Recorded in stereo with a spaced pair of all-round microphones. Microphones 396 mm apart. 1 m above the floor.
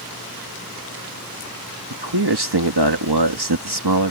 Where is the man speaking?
75° right (ahead or behind).